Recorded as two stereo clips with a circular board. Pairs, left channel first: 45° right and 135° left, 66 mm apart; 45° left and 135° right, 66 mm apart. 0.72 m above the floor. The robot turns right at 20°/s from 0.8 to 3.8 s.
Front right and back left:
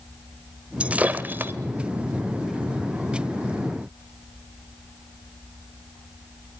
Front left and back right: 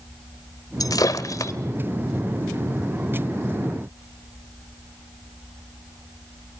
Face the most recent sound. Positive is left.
turn(degrees=125)